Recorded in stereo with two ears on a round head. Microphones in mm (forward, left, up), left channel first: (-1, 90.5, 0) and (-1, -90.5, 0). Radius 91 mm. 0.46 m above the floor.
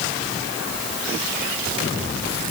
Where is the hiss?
I don't hear a hiss.